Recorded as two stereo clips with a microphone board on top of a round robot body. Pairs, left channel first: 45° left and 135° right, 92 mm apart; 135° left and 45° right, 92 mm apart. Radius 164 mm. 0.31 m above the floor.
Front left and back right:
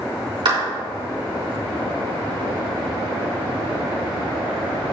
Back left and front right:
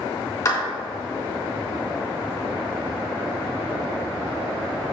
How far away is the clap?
About 3.5 m.